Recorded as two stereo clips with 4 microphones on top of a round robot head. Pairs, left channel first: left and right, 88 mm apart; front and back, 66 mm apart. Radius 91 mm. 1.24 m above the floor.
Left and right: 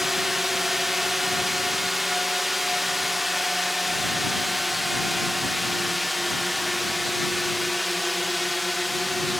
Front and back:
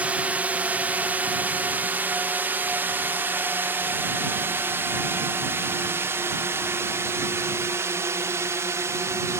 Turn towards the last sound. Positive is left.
turn(degrees=180)